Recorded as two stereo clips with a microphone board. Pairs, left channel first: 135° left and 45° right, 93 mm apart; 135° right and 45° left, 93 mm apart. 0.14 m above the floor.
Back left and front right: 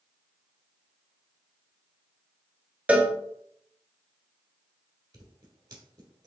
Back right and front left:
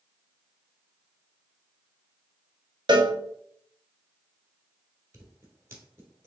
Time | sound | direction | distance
2.9 | a cowbell | 30° left | 0.6 m
5.1 | scissors | 10° right | 1.3 m